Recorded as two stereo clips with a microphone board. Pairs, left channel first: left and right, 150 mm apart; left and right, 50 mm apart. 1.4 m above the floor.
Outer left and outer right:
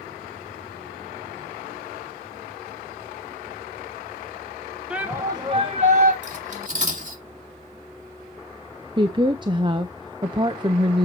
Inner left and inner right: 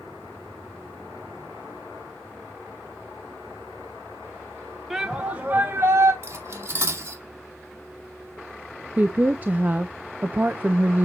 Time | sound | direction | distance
4.9 | a shout | 5° right (ahead or behind) | 1.3 m
6.2 | cutlery clinking | 50° right (ahead or behind) | 2 m
9.0 | a woman speaking | 30° right (ahead or behind) | 0.7 m